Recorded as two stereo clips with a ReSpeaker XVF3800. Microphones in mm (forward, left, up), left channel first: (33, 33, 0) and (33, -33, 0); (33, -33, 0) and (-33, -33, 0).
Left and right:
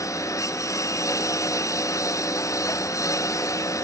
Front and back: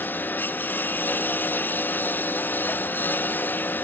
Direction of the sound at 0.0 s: 60° left.